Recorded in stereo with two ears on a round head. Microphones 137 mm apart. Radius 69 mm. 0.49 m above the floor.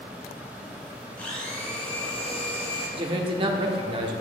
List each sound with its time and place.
1.2 s a blender: 10° left (ahead or behind), 2.5 m
3.0 s a man speaking: 35° right (ahead or behind), 0.8 m